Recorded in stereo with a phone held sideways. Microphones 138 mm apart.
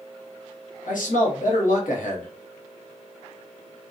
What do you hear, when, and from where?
0.9 s a man speaking: 85° left, 0.9 m